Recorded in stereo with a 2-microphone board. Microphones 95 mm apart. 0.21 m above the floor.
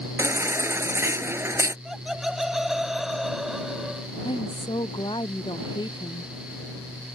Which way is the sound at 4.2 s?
55° left (ahead or behind).